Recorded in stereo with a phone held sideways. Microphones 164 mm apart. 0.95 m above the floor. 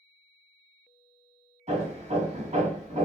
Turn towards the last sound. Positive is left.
turn(degrees=-45)  # may be behind; listen again after turning